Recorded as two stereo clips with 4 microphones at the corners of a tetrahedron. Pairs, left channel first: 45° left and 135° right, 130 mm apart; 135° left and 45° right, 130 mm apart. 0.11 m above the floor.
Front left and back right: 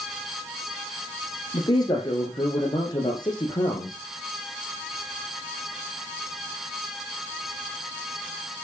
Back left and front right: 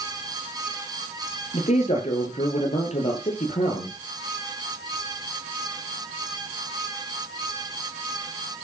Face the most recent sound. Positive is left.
turn(degrees=100)